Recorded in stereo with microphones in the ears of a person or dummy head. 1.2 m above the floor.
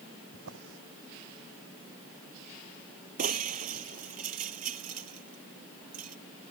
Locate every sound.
0.3 s a drawer: 75° right (ahead or behind)
3.2 s breaking glass: 45° right (ahead or behind)